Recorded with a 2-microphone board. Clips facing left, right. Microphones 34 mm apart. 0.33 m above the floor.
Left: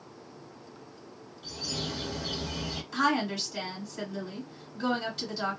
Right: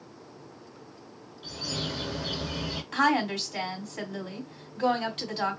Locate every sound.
1.4 s a bird: 25° right (ahead or behind), 0.7 m
2.9 s a woman speaking: 60° right (ahead or behind), 1.9 m